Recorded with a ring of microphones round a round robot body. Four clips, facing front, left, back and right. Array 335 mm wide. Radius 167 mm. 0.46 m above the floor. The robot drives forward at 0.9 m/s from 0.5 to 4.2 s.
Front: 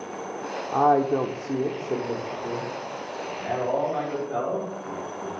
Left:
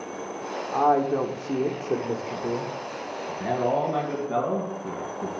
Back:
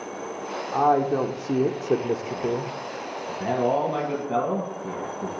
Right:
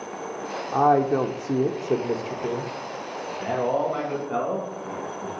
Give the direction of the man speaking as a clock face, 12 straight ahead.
7 o'clock.